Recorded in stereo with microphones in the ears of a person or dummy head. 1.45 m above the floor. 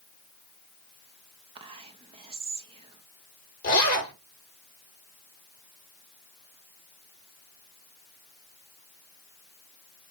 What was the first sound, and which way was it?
Whispering, 30° right (ahead or behind).